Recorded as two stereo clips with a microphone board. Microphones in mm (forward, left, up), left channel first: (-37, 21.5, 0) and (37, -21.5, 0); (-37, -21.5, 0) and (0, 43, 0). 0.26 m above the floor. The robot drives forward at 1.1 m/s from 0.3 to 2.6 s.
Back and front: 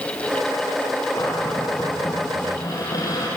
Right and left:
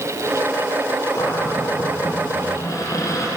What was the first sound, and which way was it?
A cupboard door, 155° right.